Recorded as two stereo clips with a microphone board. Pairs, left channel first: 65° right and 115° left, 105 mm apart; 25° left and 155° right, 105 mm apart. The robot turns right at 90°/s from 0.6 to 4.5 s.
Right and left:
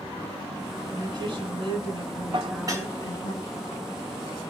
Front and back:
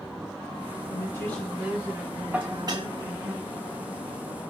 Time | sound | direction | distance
0.9 | a woman speaking | 65° left | 1.6 m
2.3 | dishes clattering | 130° left | 0.8 m